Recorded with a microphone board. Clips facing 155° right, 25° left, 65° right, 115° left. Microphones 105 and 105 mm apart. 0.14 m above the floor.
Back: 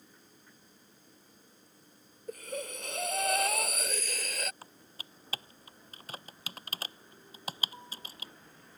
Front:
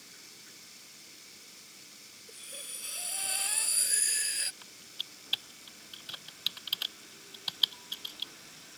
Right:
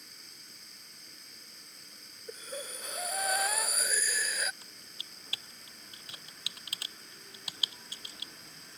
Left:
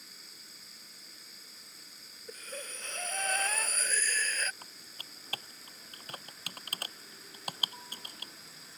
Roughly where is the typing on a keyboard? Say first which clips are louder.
Back 2 dB, left 2 dB; behind left.